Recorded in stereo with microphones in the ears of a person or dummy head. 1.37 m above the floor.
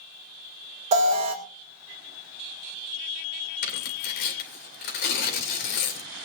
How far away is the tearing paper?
About 2.5 m.